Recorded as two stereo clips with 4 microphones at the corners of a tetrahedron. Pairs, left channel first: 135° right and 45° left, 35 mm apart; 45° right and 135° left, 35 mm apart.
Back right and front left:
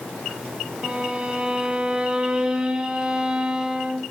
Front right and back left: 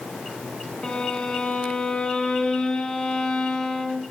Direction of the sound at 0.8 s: 5° right.